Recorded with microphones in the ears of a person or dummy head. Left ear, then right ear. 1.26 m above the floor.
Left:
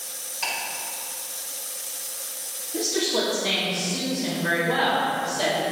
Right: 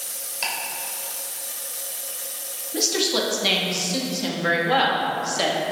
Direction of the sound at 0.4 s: 20° right (ahead or behind).